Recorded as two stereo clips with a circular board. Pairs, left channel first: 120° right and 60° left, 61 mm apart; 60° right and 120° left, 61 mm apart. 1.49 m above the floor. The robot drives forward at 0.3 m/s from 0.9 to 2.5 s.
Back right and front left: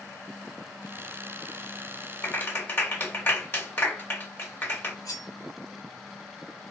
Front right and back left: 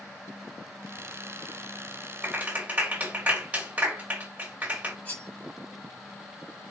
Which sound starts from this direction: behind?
A clap, at 2.2 s.